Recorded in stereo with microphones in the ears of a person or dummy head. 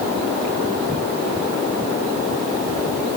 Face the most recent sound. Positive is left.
No sound to turn to.